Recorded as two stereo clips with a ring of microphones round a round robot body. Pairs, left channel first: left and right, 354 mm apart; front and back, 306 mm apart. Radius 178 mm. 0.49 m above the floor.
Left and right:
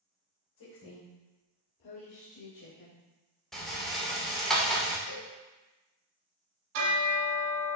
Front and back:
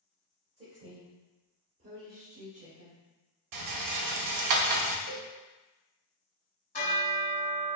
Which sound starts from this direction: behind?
A rattle, at 3.5 s.